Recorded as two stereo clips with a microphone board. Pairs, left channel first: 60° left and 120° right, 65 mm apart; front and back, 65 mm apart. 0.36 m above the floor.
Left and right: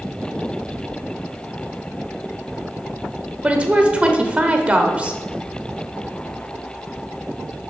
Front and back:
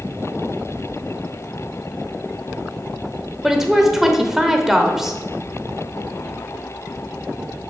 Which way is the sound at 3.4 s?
105° right.